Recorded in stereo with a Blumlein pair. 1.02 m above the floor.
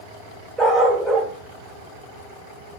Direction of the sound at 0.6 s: 10° right.